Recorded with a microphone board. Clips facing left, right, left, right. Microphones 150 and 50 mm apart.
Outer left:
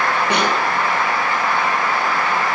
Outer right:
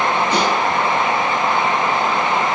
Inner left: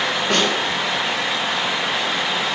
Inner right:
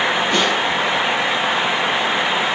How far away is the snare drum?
About 9 m.